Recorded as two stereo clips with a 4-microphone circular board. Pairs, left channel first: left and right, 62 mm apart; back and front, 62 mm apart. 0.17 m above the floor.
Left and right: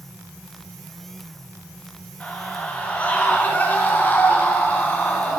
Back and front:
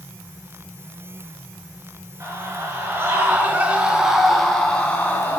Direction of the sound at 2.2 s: 20° left.